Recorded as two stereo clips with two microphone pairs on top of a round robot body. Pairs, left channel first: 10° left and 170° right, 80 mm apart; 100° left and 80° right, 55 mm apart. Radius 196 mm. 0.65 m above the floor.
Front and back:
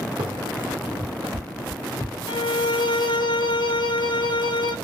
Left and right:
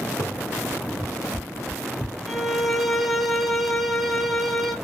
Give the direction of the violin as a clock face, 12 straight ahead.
12 o'clock.